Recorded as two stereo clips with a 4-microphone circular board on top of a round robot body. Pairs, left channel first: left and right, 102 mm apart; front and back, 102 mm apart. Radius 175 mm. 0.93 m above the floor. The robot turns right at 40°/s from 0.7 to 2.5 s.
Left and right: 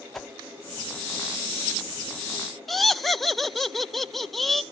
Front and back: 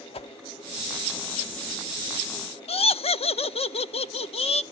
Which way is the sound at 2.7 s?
Straight ahead.